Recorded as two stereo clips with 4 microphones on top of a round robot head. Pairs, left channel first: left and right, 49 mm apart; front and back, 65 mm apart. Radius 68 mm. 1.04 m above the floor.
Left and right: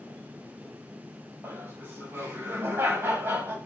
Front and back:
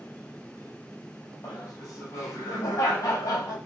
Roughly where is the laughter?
Ahead right.